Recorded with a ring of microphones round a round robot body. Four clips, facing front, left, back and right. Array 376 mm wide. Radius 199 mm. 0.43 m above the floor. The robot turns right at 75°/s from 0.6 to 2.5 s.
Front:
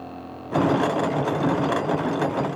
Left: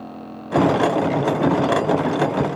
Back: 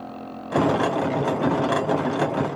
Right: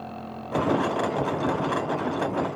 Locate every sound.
Only background noise.